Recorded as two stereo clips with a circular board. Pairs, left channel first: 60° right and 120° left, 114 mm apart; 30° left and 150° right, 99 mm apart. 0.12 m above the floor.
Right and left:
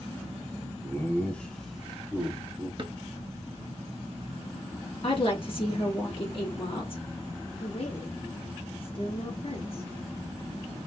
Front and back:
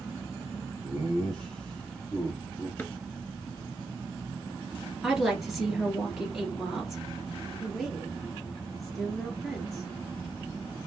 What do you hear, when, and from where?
0.8 s laughter: 50° right, 1.6 m; by 2.7 s 95° left, 1.7 m
2.8 s a drawer: 95° left, 0.9 m
5.0 s a woman speaking: 65° right, 2 m
7.6 s a woman speaking: 60° right, 1.8 m